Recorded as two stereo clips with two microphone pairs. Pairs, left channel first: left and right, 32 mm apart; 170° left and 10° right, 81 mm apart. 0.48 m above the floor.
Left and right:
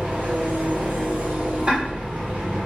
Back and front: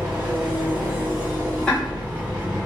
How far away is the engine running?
About 1.6 m.